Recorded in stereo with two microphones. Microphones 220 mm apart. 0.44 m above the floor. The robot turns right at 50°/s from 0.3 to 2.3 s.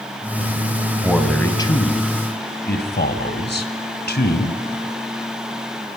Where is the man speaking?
10° right, 2.5 m; by 4.6 s 55° left, 2.5 m.